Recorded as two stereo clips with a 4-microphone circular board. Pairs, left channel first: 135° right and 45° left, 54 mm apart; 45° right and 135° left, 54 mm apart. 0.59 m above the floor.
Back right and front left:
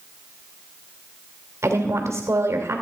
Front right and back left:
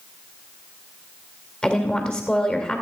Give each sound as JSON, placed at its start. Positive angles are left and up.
{"t": 1.6, "sound": "a woman speaking", "azimuth_deg": 25, "distance_m": 2.5}